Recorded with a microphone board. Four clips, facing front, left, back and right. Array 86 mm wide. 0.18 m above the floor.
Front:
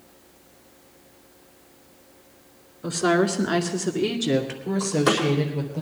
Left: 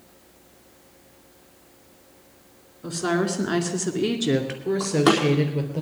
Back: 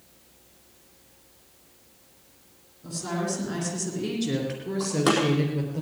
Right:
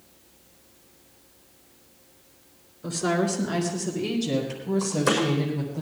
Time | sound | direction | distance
2.8 | a woman speaking | 5° left | 2.5 m
4.8 | a door slam | 100° left | 4.5 m